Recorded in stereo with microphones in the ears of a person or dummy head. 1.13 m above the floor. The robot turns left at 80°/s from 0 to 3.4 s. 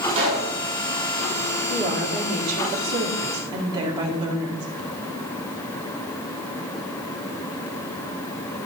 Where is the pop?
35° right (ahead or behind), 4.5 m; by 0.5 s 60° right (ahead or behind), 4.5 m.